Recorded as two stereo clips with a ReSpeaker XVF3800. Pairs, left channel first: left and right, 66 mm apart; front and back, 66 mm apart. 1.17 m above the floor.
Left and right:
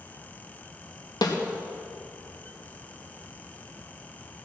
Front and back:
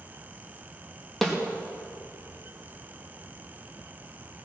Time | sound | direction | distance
1.2 | a snare drum | 85° left | 1.6 m